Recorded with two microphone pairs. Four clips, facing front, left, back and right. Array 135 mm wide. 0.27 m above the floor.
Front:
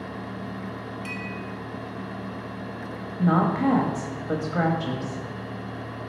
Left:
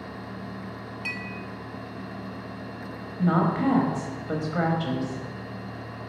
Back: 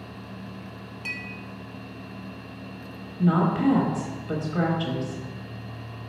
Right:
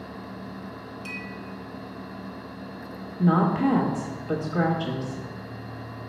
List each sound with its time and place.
1.1 s a clink: 110° left, 0.9 m
3.2 s a woman speaking: 15° left, 0.9 m